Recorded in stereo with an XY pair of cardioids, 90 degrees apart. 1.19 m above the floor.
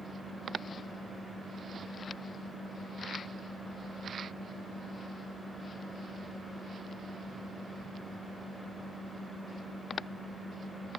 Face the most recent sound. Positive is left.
turn(degrees=-5)